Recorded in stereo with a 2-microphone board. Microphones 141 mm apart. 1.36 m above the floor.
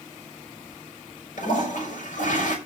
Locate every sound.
1.4 s a toilet flushing: 65° left (ahead or behind), 6 m